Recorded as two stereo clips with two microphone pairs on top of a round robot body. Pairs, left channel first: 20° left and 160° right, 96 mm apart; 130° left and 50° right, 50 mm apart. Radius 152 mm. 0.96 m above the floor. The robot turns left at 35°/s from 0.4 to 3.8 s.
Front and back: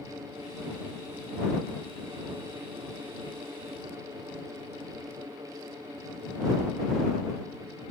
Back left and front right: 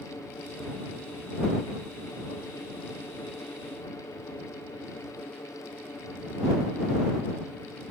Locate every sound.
Only background noise.